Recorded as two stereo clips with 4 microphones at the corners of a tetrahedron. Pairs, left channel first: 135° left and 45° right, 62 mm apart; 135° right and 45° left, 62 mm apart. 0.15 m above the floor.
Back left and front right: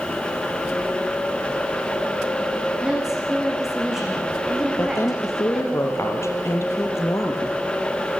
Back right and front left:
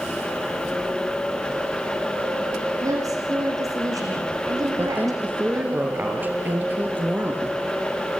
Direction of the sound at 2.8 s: 40° left.